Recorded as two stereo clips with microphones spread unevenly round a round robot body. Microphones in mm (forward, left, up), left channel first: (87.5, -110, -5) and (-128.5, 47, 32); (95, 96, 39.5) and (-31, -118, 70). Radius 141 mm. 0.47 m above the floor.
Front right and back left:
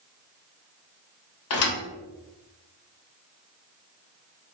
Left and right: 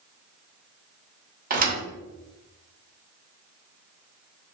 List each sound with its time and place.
1.5 s a thud: 65° right, 0.8 m